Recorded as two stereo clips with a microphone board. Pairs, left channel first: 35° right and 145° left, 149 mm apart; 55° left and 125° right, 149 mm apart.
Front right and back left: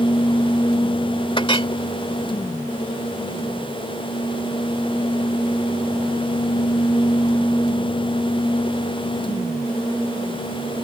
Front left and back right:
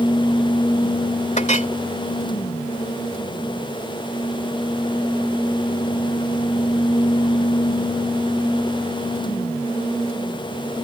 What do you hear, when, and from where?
1.4 s a clink: 20° left